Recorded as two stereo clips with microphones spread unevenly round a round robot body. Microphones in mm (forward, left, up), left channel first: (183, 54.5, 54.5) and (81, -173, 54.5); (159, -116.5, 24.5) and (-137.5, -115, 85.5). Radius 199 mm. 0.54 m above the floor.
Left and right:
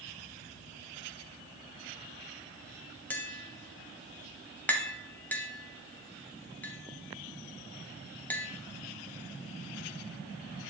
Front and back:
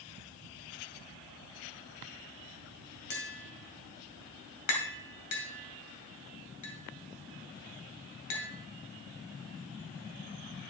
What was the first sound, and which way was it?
Tapping, 20° right.